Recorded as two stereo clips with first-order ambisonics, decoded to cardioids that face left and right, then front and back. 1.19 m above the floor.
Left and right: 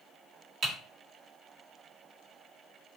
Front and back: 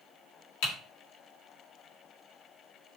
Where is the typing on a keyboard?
20° right, 1.5 m.